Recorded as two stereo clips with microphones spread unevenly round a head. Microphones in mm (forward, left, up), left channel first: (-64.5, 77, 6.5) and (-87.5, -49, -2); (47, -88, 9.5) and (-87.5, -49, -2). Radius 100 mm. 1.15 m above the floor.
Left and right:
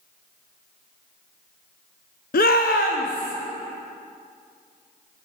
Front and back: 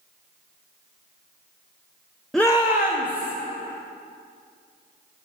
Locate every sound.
2.3 s a shout: 75° left, 0.5 m; by 3.3 s 35° left, 1.5 m